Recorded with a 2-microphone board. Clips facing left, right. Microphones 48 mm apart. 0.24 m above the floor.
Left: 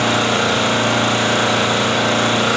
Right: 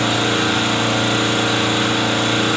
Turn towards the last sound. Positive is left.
turn(degrees=65)  # may be behind; listen again after turning